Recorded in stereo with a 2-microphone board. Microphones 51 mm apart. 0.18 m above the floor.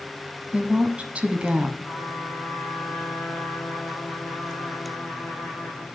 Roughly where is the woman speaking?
Right.